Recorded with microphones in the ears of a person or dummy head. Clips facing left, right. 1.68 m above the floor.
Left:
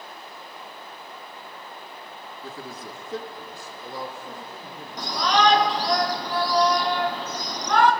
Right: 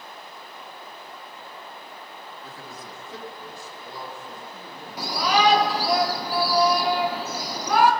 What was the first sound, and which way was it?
A man speaking, 60° left (ahead or behind).